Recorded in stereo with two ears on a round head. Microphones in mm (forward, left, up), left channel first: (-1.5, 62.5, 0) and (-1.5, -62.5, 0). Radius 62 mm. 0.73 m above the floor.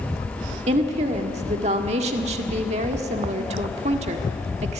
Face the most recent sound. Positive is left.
turn(degrees=-50)  # may be behind; listen again after turning